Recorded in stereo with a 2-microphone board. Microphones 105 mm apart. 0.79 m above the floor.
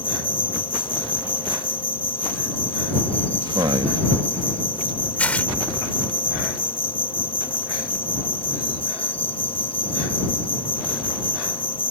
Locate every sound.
0.0 s an insect: 55° left (ahead or behind)
3.5 s a man speaking: 45° right (ahead or behind)
5.2 s tearing paper: 15° left (ahead or behind)